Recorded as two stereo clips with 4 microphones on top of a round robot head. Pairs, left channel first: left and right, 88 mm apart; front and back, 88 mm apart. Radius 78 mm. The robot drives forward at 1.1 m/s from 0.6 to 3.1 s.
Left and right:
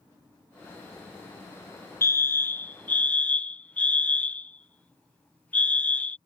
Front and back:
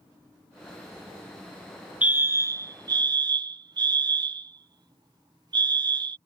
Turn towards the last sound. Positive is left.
turn(degrees=160)